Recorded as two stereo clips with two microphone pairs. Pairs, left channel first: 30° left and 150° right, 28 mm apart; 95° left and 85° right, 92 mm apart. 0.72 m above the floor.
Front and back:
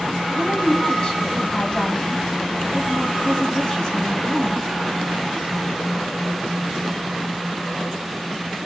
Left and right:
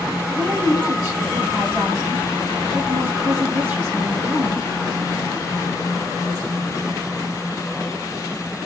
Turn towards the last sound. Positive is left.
turn(degrees=-25)